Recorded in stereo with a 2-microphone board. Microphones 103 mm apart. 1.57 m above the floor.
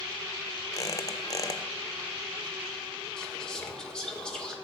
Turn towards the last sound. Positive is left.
turn(degrees=5)  # may be behind; listen again after turning